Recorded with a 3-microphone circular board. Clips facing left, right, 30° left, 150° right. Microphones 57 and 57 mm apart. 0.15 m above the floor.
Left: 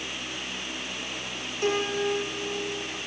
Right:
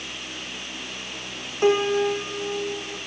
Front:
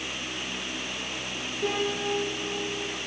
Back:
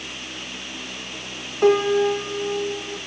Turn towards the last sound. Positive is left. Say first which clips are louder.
# right 7 dB, back 12 dB
turn(degrees=-150)